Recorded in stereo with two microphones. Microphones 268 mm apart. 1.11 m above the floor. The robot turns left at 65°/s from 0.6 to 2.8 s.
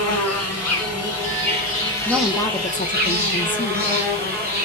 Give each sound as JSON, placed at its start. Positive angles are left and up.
{"t": 0.0, "sound": "an insect", "azimuth_deg": 105, "distance_m": 1.5}
{"t": 2.0, "sound": "a woman speaking", "azimuth_deg": -170, "distance_m": 0.7}